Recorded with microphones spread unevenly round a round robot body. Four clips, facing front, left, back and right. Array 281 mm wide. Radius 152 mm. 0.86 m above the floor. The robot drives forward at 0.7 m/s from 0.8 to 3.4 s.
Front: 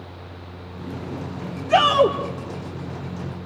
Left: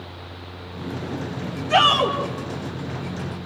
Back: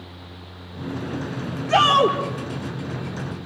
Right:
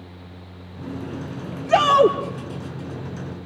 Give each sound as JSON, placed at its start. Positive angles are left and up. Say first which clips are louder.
{"t": 1.7, "sound": "a shout", "louder": "right 3 dB, even", "azimuth_deg": -85, "distance_m": 2.0}